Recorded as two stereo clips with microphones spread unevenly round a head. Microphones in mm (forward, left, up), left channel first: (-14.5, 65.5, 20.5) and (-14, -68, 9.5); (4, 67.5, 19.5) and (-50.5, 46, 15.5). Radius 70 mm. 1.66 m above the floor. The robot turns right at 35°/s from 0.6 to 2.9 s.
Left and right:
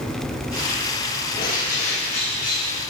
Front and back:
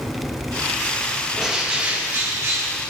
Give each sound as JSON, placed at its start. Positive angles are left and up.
{"t": 1.4, "sound": "a bird", "azimuth_deg": 110, "distance_m": 1.2}